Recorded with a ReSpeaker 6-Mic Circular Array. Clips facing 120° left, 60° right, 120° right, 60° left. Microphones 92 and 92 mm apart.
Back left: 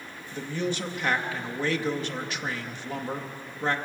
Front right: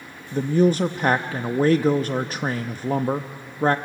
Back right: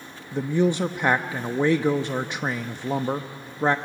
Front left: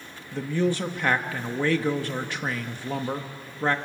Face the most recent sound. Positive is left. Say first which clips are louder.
# front right 12 dB, back right 3 dB
turn(degrees=-60)